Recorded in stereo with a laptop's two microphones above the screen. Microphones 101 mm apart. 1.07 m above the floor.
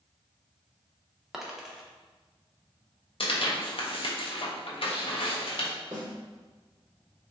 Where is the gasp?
No gasp in this recording.